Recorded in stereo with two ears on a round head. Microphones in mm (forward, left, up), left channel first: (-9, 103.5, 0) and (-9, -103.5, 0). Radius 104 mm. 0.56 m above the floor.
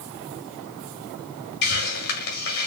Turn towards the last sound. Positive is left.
turn(degrees=70)  # may be behind; listen again after turning